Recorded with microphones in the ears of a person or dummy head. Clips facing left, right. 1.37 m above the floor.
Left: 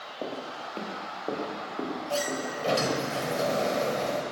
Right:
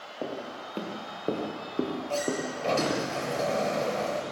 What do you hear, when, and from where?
0.2 s footsteps: 10° right (ahead or behind), 5.5 m; by 3.0 s 55° right (ahead or behind), 5.5 m
2.1 s a sliding door: 10° left (ahead or behind), 3.5 m